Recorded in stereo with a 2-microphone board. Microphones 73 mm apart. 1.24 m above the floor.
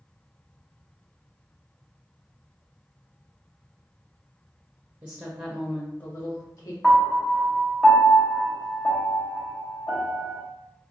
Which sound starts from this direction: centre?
A piano, at 6.8 s.